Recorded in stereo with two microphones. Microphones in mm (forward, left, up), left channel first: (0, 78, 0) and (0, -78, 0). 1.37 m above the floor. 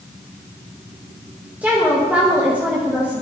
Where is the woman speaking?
10° right (ahead or behind), 1.3 m.